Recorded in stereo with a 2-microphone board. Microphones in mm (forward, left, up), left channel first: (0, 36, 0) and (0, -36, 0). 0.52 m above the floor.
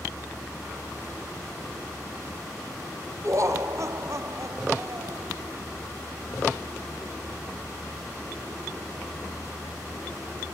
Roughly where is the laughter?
Right.